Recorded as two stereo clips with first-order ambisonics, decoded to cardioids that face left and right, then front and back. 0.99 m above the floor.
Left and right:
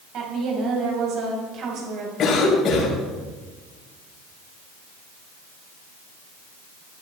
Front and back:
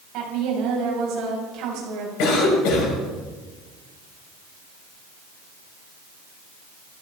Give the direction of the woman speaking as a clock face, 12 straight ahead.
5 o'clock.